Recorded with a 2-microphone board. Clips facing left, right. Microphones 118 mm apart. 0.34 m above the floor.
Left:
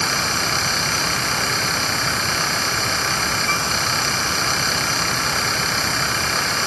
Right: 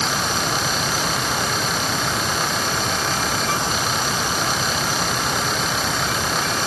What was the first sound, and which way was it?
Only background noise.